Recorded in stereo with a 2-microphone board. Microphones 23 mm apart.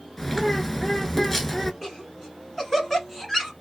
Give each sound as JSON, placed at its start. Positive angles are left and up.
{"t": 0.2, "sound": "a bird", "side_deg": 15, "distance_m": 0.8}
{"t": 1.8, "sound": "laughter", "side_deg": 15, "distance_m": 1.3}